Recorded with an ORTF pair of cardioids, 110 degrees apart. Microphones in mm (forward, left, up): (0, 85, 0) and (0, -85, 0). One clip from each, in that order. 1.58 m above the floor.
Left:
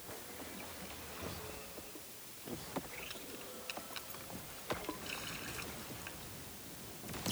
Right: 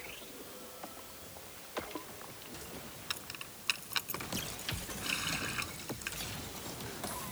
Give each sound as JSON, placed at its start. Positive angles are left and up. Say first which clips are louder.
{"t": 3.1, "sound": "keys jangling", "louder": "right 6 dB", "azimuth_deg": -65}
{"t": 5.0, "sound": "a running tap", "louder": "right 8 dB", "azimuth_deg": -50}